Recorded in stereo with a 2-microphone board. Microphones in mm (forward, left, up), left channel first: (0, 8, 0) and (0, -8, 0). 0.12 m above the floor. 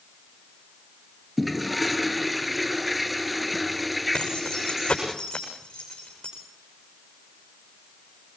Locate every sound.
1.4 s a toilet flushing: 5° right (ahead or behind), 1.4 m
4.1 s keys jangling: 75° left (ahead or behind), 7.5 m